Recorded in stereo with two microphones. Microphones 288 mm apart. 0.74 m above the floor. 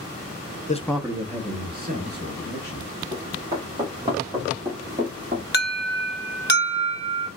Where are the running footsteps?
15° right (ahead or behind), 4 m; by 5.4 s 30° right (ahead or behind), 2.5 m.